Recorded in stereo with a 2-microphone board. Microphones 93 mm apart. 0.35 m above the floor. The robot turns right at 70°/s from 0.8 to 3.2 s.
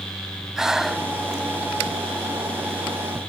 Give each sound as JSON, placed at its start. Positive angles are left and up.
{"t": 0.6, "sound": "breathing", "side_deg": -5}